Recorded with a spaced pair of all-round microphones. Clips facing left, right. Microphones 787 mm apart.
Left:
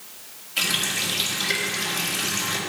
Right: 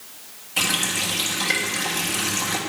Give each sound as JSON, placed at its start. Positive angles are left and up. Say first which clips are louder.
{"t": 0.6, "sound": "a running tap", "louder": "right 3 dB", "side_deg": -70, "distance_m": 1.7}